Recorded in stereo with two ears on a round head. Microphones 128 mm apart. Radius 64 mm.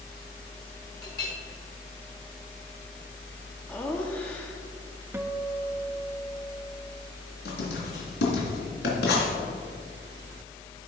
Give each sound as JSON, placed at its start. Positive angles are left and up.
{"t": 1.0, "sound": "a clink", "side_deg": 25, "distance_m": 4.0}
{"t": 3.7, "sound": "laughter", "side_deg": 10, "distance_m": 0.9}
{"t": 5.1, "sound": "a guitar", "side_deg": -15, "distance_m": 0.5}
{"t": 7.5, "sound": "writing", "side_deg": 80, "distance_m": 3.5}